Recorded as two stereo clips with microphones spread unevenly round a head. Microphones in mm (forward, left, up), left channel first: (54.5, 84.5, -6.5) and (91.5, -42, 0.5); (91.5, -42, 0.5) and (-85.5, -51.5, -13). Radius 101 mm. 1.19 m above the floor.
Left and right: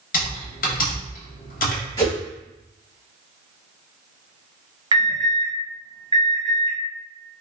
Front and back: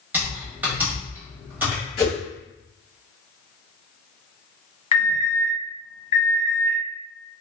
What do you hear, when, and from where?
0.1 s typing on a keyboard: 100° left, 0.8 m
2.0 s a whoosh: 50° left, 1.4 m
4.9 s an alarm: 40° right, 1.5 m